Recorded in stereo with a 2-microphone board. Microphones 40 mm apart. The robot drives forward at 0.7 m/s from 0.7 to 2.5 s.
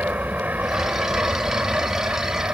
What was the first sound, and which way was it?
An aircraft, 45° right (ahead or behind).